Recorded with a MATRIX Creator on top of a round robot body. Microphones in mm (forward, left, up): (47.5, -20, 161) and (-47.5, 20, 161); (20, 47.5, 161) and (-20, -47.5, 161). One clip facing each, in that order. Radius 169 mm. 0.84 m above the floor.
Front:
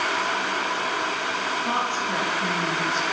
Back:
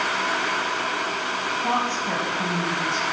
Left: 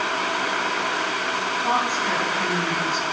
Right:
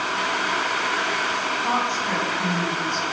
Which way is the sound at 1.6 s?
150° left.